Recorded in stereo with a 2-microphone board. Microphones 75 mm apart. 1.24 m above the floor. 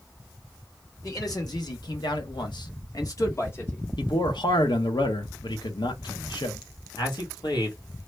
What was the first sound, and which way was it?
A man speaking, 55° left (ahead or behind).